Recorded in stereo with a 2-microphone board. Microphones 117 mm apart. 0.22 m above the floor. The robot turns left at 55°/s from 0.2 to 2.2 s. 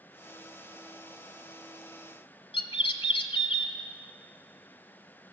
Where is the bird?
55° left (ahead or behind), 0.9 m.